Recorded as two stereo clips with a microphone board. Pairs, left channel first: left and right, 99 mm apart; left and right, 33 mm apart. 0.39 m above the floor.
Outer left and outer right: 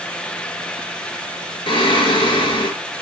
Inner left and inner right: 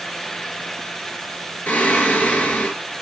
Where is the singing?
60° left (ahead or behind), 4 m.